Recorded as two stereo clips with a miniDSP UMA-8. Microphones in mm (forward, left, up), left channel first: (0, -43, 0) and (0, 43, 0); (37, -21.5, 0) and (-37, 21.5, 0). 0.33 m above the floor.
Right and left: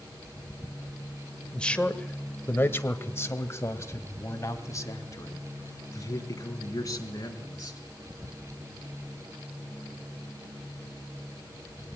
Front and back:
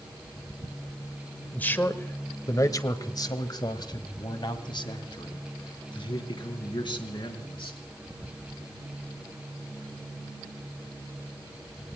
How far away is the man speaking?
About 1.1 m.